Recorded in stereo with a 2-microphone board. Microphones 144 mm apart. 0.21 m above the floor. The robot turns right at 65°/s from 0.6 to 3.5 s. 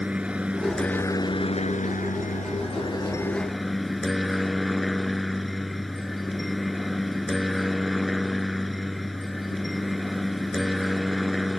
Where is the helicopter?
10° right; by 11.6 s straight behind.